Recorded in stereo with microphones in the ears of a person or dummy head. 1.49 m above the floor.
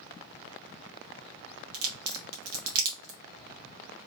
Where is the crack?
75° right (ahead or behind), 1.1 m.